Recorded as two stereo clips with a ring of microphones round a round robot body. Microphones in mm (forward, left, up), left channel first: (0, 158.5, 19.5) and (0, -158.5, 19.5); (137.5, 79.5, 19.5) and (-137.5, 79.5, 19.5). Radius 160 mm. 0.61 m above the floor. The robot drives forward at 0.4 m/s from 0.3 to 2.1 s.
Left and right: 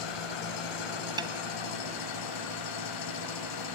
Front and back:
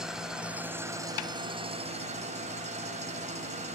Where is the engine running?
90° left, 1.8 m; by 3.8 s 115° left, 2.0 m.